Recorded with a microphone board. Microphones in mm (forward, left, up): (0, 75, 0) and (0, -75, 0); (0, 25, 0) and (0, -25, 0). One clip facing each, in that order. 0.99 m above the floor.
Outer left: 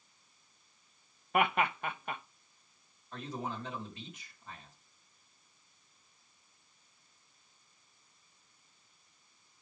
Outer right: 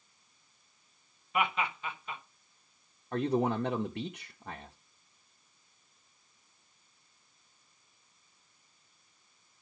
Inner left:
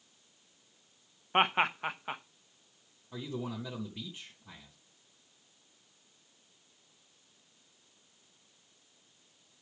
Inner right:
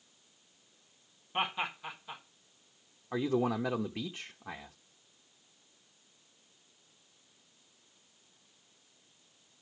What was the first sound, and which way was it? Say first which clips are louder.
Laughter: outer left 2 dB, inner left 7 dB; 60° left (ahead or behind).